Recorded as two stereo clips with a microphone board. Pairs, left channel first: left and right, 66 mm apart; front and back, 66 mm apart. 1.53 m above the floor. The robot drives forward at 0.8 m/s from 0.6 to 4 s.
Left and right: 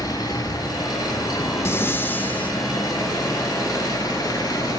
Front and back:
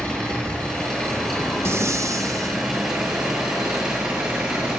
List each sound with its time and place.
0.0 s an engine running: 80° left, 8.5 m; by 4.8 s 100° left, 8.5 m
1.6 s breathing: 135° left, 1.1 m; by 2.5 s 155° left, 1.7 m